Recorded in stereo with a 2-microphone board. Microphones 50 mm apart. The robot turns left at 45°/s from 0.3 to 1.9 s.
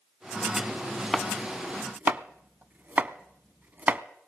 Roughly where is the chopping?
Centre.